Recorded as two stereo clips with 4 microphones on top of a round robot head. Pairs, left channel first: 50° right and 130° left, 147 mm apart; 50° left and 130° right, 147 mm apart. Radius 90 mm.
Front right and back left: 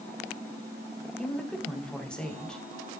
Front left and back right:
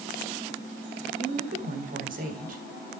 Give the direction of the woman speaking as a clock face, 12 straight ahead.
4 o'clock.